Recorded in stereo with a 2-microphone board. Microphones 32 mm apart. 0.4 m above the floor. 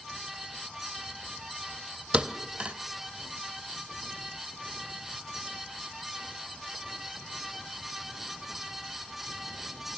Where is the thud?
40° right (ahead or behind), 0.8 m.